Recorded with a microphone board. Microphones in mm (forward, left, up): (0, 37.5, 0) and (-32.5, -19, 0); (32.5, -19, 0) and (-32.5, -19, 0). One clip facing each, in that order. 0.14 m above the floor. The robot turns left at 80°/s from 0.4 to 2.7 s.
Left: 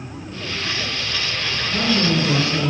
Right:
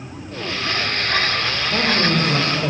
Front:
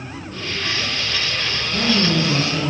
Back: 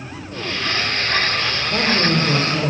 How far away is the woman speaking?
About 2 m.